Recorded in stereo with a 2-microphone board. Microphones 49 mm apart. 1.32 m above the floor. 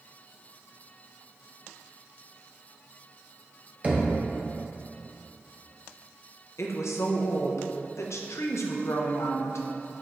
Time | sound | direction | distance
3.8 | knocking | 30° right (ahead or behind) | 0.6 m
6.6 | a woman speaking | 75° left (ahead or behind) | 0.5 m